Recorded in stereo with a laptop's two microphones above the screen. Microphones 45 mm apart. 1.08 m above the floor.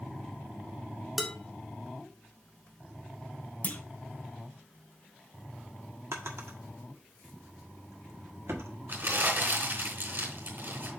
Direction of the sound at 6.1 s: 75° right (ahead or behind).